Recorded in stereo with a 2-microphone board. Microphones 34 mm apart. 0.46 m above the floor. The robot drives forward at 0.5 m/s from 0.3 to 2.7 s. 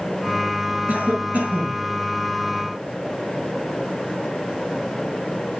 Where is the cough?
50° right (ahead or behind), 7 m; by 1.8 s 45° right (ahead or behind), 7.5 m.